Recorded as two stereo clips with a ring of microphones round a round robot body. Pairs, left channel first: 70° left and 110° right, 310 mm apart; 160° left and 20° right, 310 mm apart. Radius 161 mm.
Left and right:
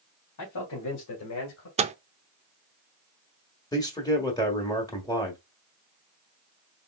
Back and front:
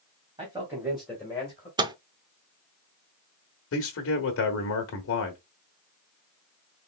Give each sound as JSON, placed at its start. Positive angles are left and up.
{"t": 0.4, "sound": "a man speaking", "azimuth_deg": 50, "distance_m": 2.5}
{"t": 1.8, "sound": "a microwave", "azimuth_deg": -80, "distance_m": 0.6}
{"t": 3.7, "sound": "a man speaking", "azimuth_deg": 140, "distance_m": 1.3}